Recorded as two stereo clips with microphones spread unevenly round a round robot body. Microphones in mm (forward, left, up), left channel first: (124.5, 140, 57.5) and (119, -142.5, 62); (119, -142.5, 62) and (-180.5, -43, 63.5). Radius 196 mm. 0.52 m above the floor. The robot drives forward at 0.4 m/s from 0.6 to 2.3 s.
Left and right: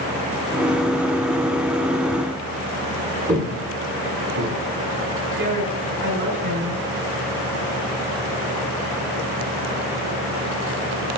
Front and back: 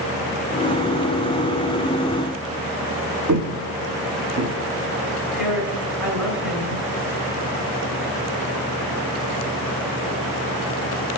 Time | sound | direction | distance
3.3 | footsteps | 160° right | 1.5 m
5.4 | a woman speaking | 110° right | 4.5 m